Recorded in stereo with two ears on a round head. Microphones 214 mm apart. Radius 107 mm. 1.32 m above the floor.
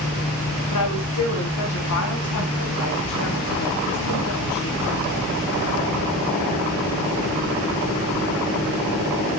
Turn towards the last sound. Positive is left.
turn(degrees=50)  # may be behind; listen again after turning